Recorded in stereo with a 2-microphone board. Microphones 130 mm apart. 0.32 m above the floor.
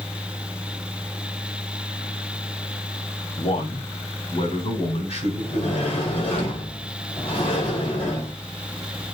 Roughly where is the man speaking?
Left.